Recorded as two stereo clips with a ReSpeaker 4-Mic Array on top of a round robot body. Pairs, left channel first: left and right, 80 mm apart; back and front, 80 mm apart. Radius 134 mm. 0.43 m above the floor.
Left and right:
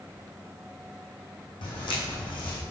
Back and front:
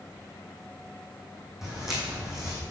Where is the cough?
No cough in this recording.